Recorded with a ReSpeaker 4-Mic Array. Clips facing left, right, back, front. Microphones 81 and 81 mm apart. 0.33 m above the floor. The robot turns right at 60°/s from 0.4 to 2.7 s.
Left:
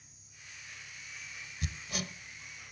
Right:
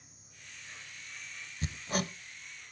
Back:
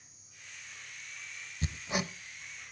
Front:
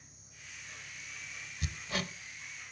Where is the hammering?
135° right, 0.7 m; by 2.1 s 105° right, 0.7 m.